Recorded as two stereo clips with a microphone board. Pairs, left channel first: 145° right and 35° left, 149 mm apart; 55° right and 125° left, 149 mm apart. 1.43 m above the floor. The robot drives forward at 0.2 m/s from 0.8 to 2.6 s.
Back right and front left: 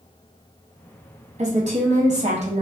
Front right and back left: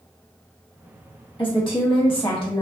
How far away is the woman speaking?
About 0.8 m.